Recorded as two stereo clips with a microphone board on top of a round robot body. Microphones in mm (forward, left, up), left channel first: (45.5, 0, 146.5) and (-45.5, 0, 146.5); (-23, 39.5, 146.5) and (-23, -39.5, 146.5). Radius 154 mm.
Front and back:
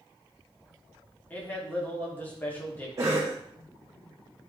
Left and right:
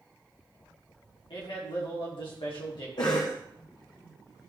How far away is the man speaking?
About 3 m.